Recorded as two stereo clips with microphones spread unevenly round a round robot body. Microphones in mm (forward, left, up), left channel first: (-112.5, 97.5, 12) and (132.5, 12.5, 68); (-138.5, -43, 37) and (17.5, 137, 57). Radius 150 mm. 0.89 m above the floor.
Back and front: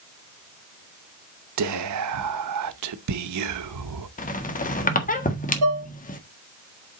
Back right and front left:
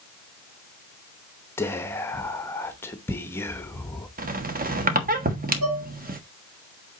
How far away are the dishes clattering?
About 2.0 m.